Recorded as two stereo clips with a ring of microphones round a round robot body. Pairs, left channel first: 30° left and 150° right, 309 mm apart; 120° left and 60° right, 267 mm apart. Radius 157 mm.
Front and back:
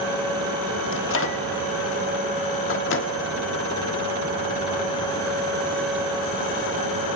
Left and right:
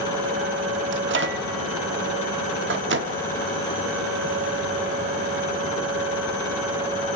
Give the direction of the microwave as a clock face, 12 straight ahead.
1 o'clock.